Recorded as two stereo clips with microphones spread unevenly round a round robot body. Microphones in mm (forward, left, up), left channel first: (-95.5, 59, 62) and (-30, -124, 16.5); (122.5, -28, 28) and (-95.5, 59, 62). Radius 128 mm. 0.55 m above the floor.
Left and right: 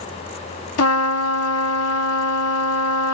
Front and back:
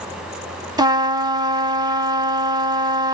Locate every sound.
0.8 s a trumpet: 85° left, 1.2 m